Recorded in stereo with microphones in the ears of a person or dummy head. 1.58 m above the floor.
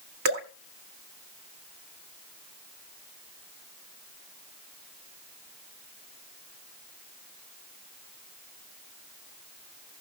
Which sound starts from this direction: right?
Dripping, at 0.2 s.